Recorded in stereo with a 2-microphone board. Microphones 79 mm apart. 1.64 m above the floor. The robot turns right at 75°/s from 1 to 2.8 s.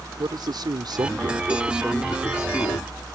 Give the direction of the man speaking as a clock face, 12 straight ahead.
2 o'clock.